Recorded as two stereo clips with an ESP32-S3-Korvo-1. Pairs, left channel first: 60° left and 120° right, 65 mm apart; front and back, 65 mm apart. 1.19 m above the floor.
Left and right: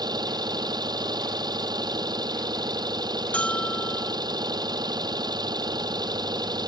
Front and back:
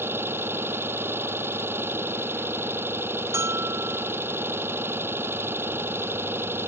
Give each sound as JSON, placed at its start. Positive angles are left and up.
{"t": 0.0, "sound": "an engine running", "azimuth_deg": -125}
{"t": 3.3, "sound": "a bell", "azimuth_deg": 130}